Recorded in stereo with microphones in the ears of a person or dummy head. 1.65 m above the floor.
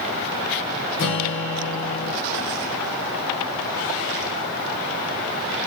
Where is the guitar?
60° left (ahead or behind), 1.1 m.